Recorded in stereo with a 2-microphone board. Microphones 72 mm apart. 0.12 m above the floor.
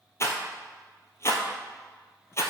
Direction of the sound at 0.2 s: 40° left (ahead or behind).